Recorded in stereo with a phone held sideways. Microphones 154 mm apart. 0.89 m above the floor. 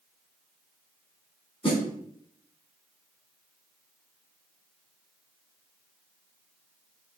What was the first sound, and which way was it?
A snare drum, 35° left (ahead or behind).